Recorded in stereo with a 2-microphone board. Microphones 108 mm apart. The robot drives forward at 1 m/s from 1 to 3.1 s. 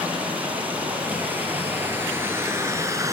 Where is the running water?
15° right (ahead or behind), 3.5 m; by 3.1 s 30° right (ahead or behind), 1.8 m.